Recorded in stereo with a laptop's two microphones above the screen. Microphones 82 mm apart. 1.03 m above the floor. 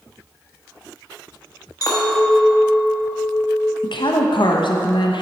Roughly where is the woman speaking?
Left.